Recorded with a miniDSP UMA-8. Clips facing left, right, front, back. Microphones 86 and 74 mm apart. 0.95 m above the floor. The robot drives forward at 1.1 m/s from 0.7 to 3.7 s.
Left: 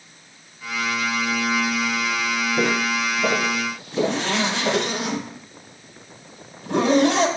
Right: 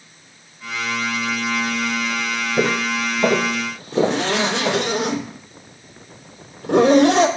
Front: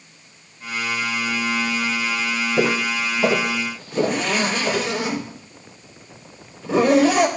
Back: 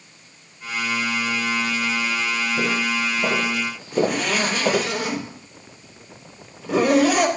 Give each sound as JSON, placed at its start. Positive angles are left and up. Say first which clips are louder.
{"t": 2.6, "sound": "footsteps", "louder": "right 3 dB, front 5 dB", "azimuth_deg": -35, "distance_m": 2.5}
{"t": 3.9, "sound": "a zipper", "louder": "right 4 dB, even", "azimuth_deg": -100, "distance_m": 3.0}